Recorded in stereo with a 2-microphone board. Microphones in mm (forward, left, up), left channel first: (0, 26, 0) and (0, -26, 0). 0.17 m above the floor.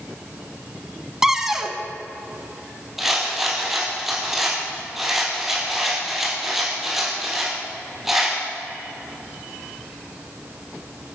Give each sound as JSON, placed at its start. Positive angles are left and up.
{"t": 1.2, "sound": "a cupboard door", "side_deg": -10, "distance_m": 0.9}
{"t": 3.0, "sound": "a rattle", "side_deg": -5, "distance_m": 3.5}